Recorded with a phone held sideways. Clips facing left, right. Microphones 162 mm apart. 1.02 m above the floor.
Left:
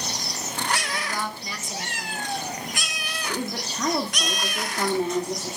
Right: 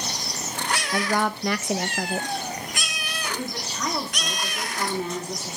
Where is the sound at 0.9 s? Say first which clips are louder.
Right 7 dB; 65° right (ahead or behind), 0.9 m.